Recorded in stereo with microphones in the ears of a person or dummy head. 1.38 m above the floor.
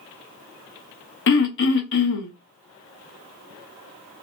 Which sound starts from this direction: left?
Throat clearing, at 1.3 s.